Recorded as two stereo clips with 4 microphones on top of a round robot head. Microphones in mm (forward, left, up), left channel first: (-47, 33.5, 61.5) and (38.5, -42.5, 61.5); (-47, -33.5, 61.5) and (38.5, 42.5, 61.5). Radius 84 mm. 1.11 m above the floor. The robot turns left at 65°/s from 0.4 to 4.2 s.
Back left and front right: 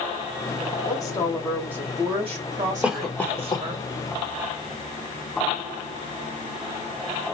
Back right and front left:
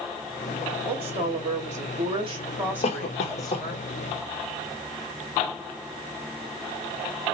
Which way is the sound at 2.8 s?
120° right.